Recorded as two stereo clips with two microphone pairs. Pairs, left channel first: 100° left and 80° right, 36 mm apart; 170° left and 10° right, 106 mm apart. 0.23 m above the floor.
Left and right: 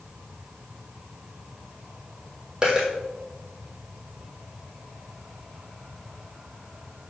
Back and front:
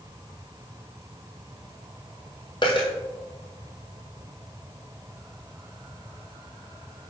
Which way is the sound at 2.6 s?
145° right.